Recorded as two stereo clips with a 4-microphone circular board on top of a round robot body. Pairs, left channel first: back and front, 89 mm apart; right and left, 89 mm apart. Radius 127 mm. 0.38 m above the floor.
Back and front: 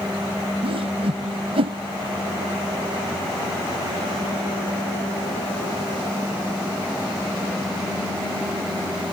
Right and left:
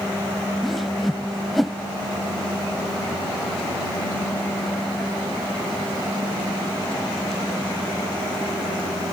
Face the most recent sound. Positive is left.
turn(degrees=0)